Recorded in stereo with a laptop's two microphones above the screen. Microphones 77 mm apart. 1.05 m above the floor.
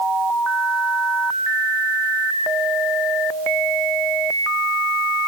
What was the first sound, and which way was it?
Only background noise.